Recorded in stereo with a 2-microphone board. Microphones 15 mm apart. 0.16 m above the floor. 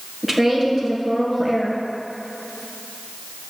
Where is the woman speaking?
15° right (ahead or behind), 2.5 m.